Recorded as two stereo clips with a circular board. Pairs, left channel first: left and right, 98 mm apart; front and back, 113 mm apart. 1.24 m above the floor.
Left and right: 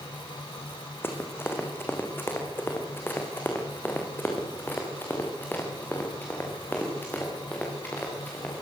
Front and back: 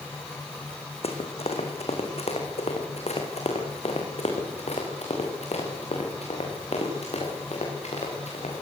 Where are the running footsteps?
25° left, 4.5 m; by 8.5 s 20° left, 9 m.